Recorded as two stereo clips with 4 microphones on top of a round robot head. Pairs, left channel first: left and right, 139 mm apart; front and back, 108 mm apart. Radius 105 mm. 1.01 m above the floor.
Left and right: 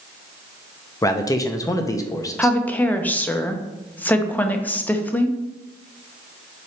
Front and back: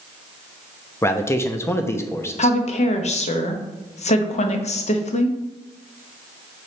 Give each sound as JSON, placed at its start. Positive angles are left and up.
{"t": 1.0, "sound": "a man speaking", "azimuth_deg": 45, "distance_m": 0.9}
{"t": 2.4, "sound": "a woman speaking", "azimuth_deg": 10, "distance_m": 0.9}